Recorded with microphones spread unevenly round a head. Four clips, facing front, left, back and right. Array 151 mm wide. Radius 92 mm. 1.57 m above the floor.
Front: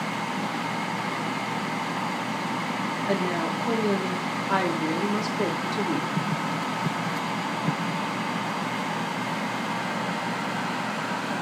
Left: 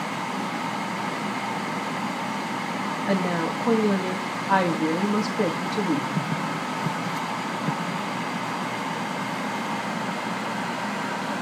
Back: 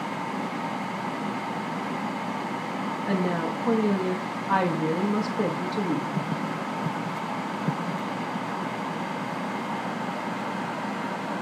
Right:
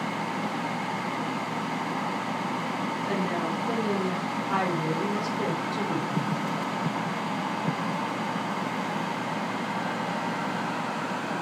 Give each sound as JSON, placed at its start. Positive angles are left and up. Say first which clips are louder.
{"t": 3.1, "sound": "a woman speaking", "louder": "left 5 dB, even", "azimuth_deg": 140, "distance_m": 3.0}